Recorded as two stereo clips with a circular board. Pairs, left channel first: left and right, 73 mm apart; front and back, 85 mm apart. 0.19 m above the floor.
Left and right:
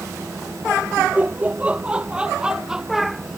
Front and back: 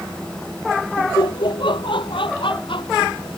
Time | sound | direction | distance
1.0 | laughter | 25° right | ?